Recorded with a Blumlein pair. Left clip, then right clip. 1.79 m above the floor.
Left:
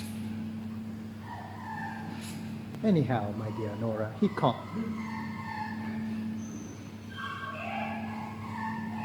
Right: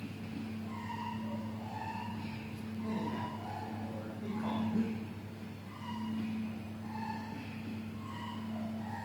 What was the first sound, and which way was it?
A man speaking, 50° left.